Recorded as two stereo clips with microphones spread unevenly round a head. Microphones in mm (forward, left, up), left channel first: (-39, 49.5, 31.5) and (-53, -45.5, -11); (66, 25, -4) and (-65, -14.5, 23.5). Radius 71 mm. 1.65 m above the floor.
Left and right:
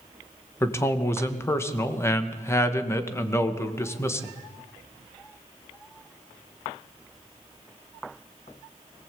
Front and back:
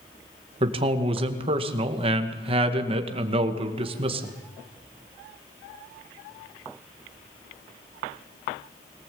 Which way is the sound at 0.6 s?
145° left.